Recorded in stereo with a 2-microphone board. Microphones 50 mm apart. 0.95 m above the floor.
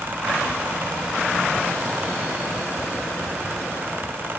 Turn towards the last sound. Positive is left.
No sound to turn to.